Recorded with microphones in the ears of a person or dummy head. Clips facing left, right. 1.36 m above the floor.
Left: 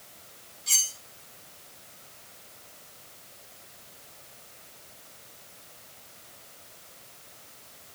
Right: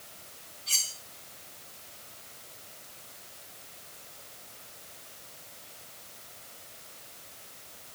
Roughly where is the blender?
I don't hear a blender.